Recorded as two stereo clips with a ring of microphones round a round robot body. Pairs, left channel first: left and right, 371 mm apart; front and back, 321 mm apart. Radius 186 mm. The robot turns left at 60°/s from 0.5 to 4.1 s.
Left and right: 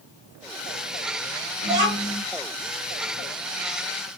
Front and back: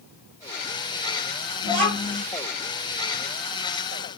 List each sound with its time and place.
1.6 s a child speaking: 130° right, 1.9 m; by 2.2 s 165° right, 1.9 m